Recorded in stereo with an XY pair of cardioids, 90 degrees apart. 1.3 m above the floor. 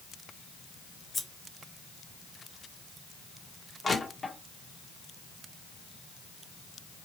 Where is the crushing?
30° left, 0.9 m.